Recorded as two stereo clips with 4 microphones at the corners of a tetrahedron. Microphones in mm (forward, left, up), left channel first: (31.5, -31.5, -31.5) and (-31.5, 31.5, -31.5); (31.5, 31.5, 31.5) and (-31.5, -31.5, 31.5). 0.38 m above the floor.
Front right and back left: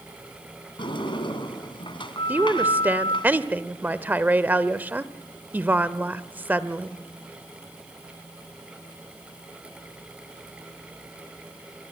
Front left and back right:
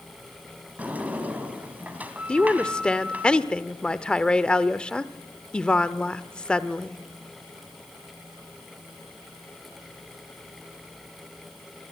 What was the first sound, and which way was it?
A sliding door, 65° right.